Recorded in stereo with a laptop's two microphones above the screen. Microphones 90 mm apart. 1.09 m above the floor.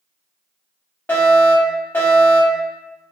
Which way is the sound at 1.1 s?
25° left (ahead or behind).